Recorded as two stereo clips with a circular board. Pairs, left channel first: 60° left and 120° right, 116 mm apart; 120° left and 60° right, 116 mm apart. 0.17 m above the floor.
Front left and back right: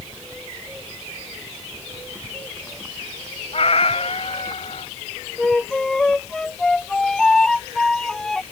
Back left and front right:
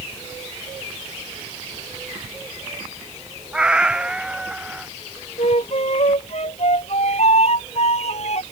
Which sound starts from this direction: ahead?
A cat meowing, at 3.5 s.